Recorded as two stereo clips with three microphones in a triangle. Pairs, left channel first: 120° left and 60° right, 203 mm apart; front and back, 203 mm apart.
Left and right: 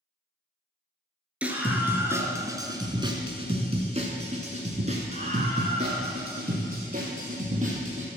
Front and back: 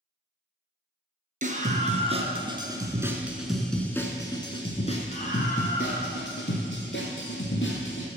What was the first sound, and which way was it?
A scream, 140° right.